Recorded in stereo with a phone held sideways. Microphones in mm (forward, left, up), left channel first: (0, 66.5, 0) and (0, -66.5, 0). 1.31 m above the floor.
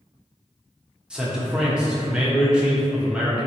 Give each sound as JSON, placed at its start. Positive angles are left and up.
{"t": 1.1, "sound": "a man speaking", "side_deg": -5, "distance_m": 0.8}